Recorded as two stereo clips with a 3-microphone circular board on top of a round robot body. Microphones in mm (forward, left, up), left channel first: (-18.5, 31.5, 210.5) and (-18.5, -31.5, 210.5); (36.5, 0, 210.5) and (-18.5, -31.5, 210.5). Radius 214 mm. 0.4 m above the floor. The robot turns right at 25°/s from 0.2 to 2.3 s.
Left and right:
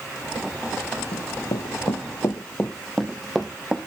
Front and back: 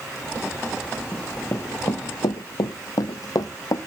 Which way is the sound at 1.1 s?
100° left.